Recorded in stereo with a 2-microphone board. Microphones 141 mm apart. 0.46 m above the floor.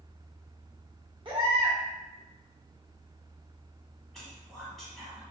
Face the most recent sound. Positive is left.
turn(degrees=0)  # may be behind; listen again after turning